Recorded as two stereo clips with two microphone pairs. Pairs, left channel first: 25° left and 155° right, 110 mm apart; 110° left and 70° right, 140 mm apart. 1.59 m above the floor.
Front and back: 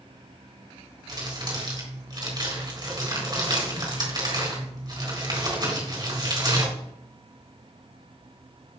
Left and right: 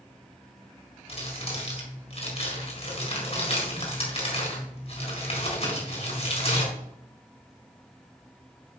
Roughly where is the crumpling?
Behind left.